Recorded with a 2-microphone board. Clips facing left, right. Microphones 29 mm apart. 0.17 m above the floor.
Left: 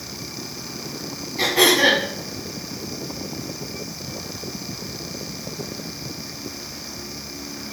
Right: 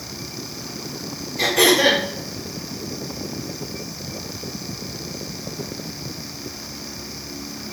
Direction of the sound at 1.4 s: 25° left (ahead or behind).